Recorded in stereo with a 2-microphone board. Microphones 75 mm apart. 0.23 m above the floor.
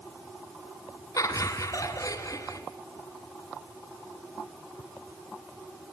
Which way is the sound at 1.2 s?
50° left (ahead or behind).